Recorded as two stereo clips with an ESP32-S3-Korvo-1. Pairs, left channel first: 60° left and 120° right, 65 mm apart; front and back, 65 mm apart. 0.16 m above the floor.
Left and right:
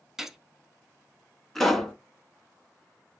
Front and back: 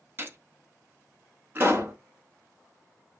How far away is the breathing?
No breathing in this recording.